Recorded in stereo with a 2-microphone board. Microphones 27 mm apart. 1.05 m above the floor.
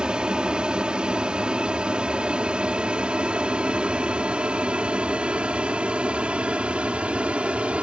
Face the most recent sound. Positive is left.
turn(degrees=-50)  # may be behind; listen again after turning